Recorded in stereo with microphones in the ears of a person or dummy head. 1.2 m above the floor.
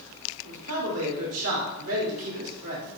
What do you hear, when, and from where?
0.4 s a man speaking: 75° right (ahead or behind), 3 m